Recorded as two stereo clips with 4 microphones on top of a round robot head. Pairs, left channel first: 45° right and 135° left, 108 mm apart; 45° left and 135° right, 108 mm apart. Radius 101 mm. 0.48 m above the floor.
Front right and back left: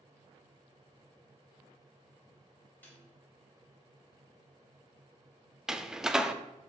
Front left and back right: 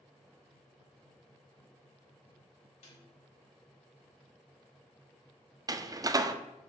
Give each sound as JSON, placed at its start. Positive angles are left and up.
{"t": 2.8, "sound": "a snare drum", "azimuth_deg": 30, "distance_m": 3.5}
{"t": 5.7, "sound": "a door slam", "azimuth_deg": -145, "distance_m": 0.6}